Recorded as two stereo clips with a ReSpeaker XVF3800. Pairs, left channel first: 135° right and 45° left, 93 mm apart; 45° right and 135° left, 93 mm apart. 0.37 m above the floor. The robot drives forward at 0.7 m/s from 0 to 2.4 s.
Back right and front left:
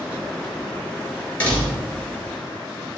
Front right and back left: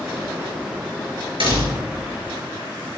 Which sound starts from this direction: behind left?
A door slam, at 1.4 s.